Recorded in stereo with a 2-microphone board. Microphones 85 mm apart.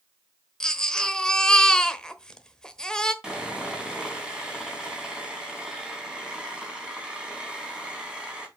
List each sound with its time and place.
0.6 s a baby crying: 10° left (ahead or behind), 1.1 m
3.2 s sawing: 10° right (ahead or behind), 3.5 m